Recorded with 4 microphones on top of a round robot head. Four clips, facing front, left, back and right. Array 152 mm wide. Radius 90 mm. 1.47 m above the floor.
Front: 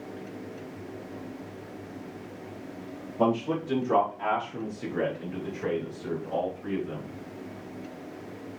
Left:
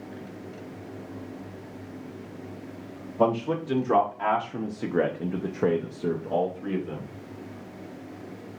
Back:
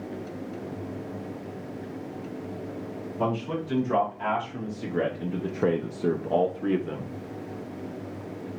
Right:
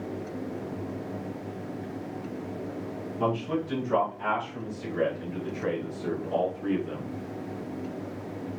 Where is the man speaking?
60° left, 1.6 m; by 7.0 s 175° right, 1.2 m.